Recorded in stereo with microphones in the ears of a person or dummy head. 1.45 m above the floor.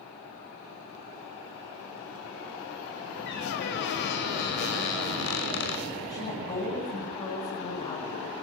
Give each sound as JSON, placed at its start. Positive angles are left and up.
{"t": 3.3, "sound": "a squeak", "side_deg": 60, "distance_m": 5.5}
{"t": 6.1, "sound": "a woman speaking", "side_deg": 35, "distance_m": 8.5}